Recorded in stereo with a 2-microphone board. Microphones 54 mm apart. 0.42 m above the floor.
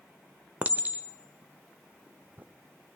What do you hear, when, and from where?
0.6 s a clink: 30° right (ahead or behind), 0.8 m